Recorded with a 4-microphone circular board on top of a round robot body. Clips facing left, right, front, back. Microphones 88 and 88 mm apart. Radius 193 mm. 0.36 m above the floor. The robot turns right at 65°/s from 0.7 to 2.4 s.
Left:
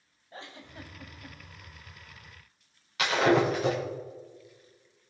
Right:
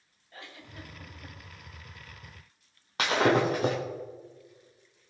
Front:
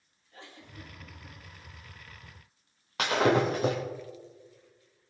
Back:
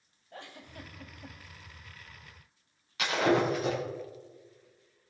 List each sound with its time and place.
0.3 s a giggle: 150° left, 1.7 m; by 1.4 s 165° right, 1.7 m
3.0 s breaking glass: 40° right, 5 m